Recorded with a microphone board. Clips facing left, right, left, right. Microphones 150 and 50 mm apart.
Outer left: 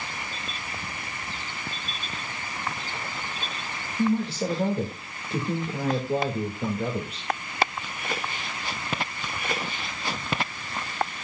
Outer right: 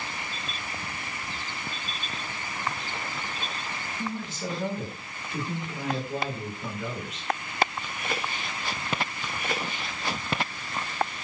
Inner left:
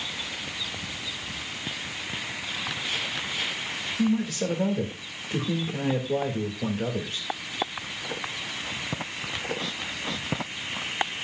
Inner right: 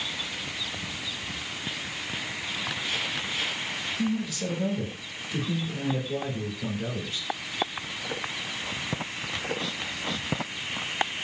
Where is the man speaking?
70° left (ahead or behind), 3 m.